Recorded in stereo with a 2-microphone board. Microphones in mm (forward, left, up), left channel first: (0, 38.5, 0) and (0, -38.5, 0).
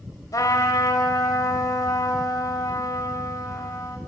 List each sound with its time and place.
0.3 s a trumpet: 50° left (ahead or behind), 1.8 m